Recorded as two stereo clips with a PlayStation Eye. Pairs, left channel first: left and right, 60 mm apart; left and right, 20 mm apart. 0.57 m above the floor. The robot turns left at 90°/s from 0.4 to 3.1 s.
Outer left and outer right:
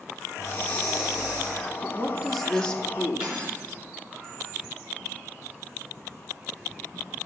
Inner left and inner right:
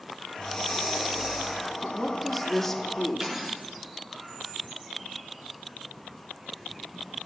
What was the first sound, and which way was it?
Breathing, 55° left.